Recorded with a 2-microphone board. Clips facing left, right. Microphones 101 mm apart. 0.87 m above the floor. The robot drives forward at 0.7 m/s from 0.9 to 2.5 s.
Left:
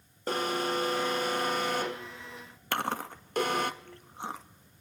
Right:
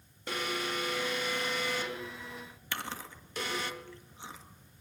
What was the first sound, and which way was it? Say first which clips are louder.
An alarm: left 5 dB; 40° left (ahead or behind).